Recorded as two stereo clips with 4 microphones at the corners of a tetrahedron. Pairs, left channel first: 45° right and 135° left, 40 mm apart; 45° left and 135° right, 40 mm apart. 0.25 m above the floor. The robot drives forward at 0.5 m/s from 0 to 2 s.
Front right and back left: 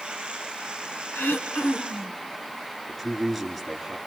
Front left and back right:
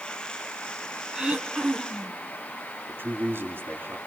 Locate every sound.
1.1 s throat clearing: 65° right, 3 m; by 2.2 s 75° right, 3 m
2.9 s a man speaking: 135° right, 3.5 m